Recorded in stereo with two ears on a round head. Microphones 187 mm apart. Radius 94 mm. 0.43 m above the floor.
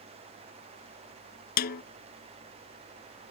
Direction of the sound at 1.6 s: 50° left (ahead or behind).